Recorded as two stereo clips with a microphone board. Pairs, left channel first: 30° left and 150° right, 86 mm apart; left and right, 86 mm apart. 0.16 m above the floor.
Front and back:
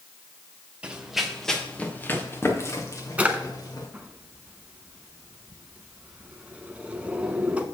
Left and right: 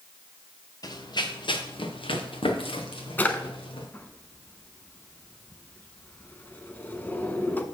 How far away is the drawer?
About 0.9 m.